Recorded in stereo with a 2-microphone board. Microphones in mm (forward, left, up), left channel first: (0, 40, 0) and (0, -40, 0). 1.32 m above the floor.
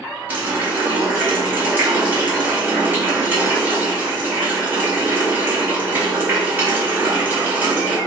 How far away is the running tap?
About 1.2 m.